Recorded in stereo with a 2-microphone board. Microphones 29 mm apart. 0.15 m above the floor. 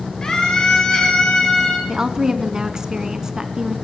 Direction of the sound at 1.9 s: 20° right (ahead or behind).